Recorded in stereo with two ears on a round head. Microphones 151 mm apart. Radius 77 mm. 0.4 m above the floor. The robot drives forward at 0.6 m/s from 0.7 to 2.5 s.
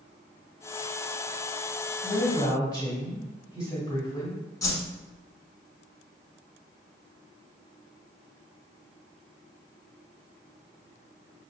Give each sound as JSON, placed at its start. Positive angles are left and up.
{"t": 2.0, "sound": "a woman speaking", "side_deg": 30, "distance_m": 1.8}
{"t": 4.6, "sound": "a whoosh", "side_deg": 20, "distance_m": 0.9}